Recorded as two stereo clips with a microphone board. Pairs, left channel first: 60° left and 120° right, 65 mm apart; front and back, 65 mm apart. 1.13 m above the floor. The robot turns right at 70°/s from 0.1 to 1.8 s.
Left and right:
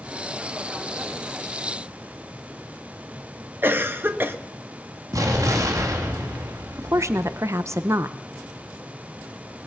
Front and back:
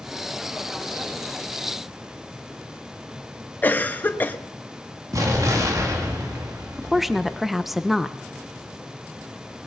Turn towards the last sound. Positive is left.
turn(degrees=-90)